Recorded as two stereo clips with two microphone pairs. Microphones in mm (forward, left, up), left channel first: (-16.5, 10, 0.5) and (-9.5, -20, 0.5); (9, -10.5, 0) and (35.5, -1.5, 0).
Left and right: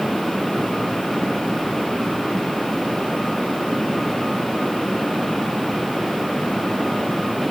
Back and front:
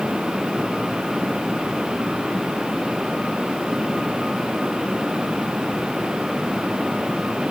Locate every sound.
Only background noise.